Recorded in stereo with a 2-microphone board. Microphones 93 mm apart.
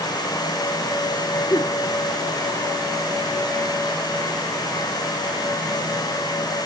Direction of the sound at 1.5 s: 30° left (ahead or behind).